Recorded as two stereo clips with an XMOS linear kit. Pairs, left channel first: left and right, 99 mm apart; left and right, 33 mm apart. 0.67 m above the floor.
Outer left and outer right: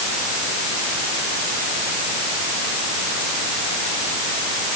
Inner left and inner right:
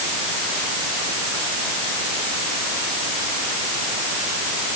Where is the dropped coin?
No dropped coin in this recording.